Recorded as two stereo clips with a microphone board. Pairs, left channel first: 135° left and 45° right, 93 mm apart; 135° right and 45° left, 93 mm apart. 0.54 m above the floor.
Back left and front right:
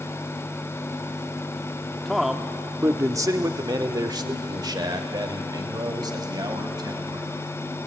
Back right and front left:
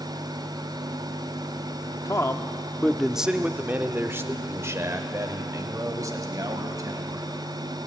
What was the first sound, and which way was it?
A man speaking, 140° right.